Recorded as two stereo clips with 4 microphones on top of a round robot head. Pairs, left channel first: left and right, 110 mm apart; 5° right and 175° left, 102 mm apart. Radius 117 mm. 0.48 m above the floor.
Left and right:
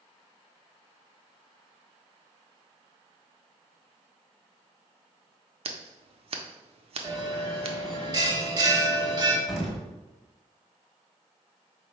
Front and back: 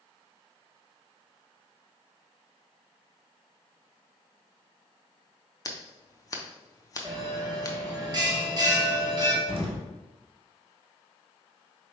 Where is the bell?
140° right, 1.0 m.